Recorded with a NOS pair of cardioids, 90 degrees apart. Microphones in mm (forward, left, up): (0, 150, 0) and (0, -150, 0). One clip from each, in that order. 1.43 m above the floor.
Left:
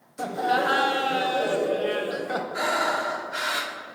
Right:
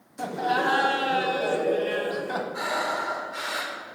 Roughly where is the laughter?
Ahead.